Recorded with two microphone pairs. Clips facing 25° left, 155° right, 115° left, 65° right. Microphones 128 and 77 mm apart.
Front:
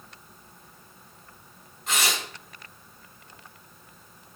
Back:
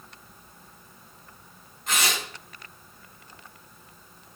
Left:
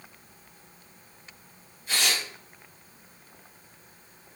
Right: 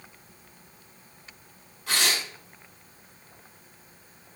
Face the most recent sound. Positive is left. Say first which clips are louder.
# even, right 1 dB
turn(degrees=-65)